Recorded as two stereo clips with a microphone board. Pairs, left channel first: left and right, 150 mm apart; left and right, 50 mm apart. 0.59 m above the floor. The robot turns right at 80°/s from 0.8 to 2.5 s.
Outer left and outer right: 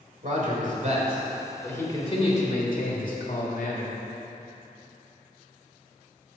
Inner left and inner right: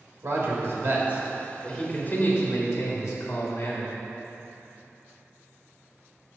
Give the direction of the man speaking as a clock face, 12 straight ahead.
2 o'clock.